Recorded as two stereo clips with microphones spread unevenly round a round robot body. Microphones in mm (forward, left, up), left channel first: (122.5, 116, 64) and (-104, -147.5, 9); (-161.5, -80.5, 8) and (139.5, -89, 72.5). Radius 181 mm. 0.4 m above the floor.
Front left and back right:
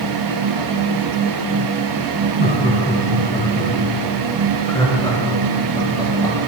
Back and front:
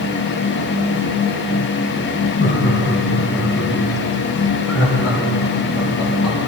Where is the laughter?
115° left, 2.5 m; by 6.4 s 130° left, 6.5 m.